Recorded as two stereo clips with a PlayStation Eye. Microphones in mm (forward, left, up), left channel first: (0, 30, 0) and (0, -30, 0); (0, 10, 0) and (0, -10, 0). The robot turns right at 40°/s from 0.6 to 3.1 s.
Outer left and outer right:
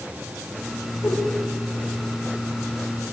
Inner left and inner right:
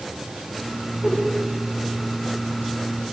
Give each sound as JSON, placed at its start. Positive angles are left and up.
{"t": 1.0, "sound": "a whoosh", "side_deg": 45, "distance_m": 8.5}